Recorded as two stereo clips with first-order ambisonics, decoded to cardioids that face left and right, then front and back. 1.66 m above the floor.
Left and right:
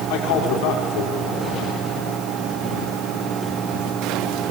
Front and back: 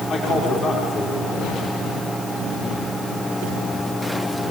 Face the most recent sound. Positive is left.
turn(degrees=65)